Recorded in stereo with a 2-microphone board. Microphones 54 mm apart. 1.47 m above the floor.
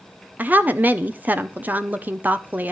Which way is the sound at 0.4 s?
30° right (ahead or behind).